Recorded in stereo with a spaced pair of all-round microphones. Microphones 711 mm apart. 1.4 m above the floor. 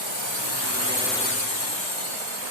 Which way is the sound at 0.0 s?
40° right (ahead or behind).